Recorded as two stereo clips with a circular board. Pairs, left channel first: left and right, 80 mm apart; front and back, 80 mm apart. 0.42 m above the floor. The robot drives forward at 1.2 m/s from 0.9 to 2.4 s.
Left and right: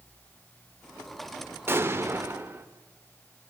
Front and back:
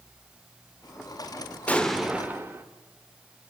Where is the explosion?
55° right, 1.1 m; by 2.6 s 135° right, 1.2 m.